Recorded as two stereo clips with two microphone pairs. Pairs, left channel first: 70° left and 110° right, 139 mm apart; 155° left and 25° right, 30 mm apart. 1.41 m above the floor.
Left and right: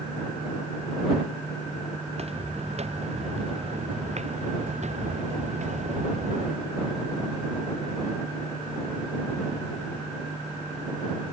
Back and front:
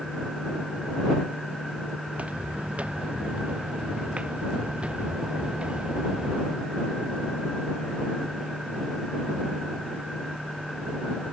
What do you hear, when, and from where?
2.1 s footsteps: 70° right; by 6.6 s 80° right